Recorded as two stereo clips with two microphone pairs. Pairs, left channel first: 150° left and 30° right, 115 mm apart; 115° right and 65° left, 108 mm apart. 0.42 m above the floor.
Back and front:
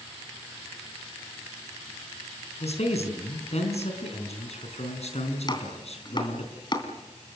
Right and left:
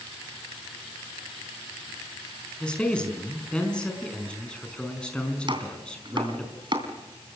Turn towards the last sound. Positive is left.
turn(degrees=100)